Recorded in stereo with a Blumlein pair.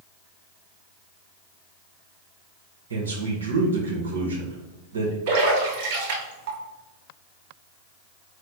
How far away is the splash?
About 1.6 m.